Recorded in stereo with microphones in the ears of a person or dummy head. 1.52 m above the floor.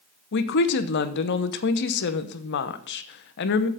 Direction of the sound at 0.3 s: 60° left (ahead or behind).